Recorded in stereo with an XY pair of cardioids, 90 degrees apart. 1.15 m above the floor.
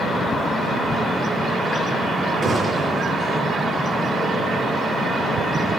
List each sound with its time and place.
2.4 s a gunshot: 30° right, 8 m